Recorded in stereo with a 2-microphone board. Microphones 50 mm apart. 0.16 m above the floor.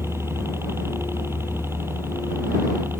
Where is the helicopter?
55° right (ahead or behind); by 3.0 s 50° right (ahead or behind).